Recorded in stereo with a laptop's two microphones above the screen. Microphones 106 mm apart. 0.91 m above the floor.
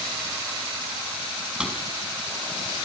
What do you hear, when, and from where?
1.6 s a drawer: 10° right (ahead or behind), 4.5 m